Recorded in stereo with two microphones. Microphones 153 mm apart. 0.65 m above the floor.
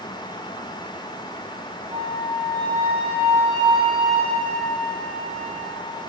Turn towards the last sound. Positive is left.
turn(degrees=-30)  # may be behind; listen again after turning